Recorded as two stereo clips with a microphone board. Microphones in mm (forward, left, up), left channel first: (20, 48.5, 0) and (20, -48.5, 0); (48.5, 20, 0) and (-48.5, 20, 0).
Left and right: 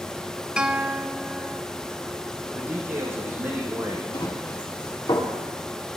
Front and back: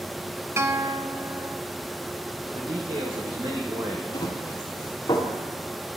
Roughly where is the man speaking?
Behind right.